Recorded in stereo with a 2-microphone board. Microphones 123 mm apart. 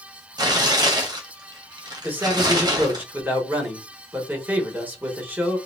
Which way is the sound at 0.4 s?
35° right (ahead or behind).